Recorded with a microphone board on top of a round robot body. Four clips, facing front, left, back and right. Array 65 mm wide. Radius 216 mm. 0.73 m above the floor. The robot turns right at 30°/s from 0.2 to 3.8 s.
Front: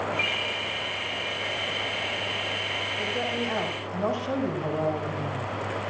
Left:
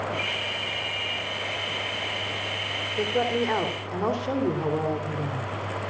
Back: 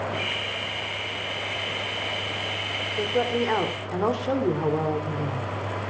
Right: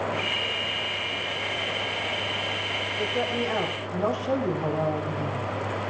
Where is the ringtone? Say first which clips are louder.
Right 1 dB, front 1 dB; 20° left, 9.5 m; by 1.2 s 50° left, 9.5 m.